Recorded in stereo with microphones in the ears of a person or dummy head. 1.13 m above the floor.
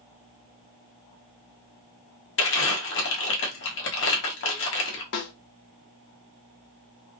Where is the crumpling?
55° left (ahead or behind), 0.7 m.